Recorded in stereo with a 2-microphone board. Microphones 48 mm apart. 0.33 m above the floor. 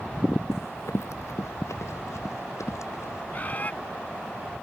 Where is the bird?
35° left (ahead or behind).